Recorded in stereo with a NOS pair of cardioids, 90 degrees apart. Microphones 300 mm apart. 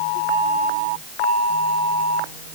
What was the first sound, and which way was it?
Only background noise.